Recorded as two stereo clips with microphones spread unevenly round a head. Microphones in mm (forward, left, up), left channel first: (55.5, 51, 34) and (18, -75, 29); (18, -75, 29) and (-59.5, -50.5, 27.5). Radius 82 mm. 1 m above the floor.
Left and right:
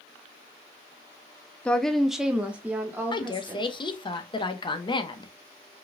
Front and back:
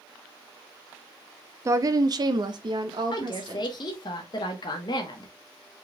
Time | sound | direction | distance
1.6 | a woman speaking | 155° left | 0.6 m
3.1 | a woman speaking | 20° left | 1.0 m